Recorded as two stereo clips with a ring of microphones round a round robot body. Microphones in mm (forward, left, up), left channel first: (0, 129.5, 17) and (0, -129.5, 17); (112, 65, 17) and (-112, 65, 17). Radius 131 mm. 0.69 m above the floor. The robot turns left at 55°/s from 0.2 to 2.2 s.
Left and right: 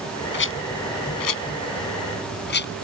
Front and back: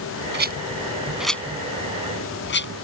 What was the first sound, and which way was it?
A rattle, 140° left.